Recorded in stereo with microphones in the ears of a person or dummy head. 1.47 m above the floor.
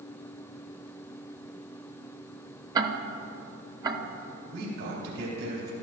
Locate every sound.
2.8 s ticking: 20° right (ahead or behind), 0.7 m
4.5 s a man speaking: 65° right (ahead or behind), 4 m